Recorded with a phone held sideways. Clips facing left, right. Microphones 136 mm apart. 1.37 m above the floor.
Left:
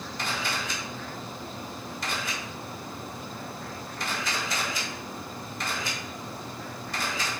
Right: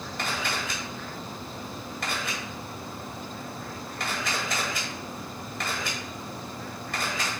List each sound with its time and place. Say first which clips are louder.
0.2 s a camera shutter: right 1 dB; 65° right (ahead or behind), 4.5 m